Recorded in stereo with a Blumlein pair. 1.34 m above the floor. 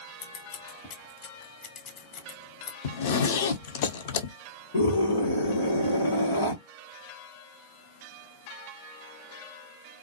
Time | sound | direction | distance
0.2 | scissors | 35° left | 0.7 m
2.8 | a zipper | 55° left | 0.5 m
4.7 | a scream | 65° left | 1.3 m